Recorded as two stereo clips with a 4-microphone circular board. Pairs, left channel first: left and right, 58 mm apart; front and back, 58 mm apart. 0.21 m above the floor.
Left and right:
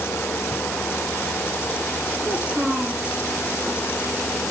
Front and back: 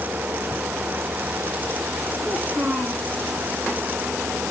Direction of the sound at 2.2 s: 150° right.